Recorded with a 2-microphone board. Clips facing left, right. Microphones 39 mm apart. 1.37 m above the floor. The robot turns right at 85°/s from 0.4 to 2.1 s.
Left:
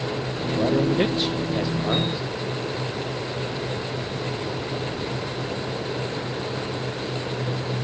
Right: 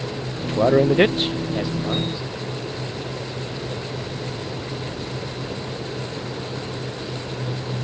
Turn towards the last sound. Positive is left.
turn(degrees=35)